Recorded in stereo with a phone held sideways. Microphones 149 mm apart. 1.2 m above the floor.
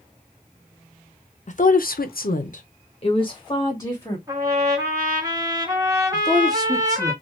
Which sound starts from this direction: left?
A woman speaking, at 1.5 s.